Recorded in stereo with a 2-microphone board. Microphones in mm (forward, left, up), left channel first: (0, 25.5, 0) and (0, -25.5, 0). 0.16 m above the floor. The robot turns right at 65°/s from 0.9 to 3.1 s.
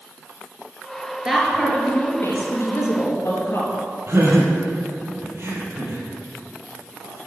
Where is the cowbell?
No cowbell in this recording.